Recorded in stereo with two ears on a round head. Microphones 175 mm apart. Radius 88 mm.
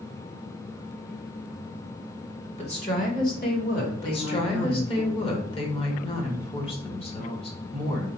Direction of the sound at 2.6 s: 30° left (ahead or behind).